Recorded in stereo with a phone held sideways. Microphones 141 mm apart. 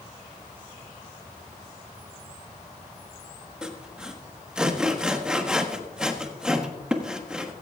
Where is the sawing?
5° right (ahead or behind), 1.2 m.